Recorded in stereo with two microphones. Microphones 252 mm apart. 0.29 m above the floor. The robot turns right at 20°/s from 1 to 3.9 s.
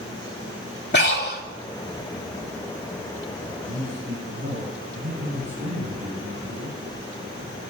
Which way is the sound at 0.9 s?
45° left (ahead or behind).